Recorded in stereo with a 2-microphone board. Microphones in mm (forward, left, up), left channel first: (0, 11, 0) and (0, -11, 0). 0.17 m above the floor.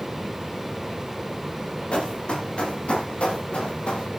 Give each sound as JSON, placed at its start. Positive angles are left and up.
{"t": 1.9, "sound": "running footsteps", "side_deg": 55, "distance_m": 9.0}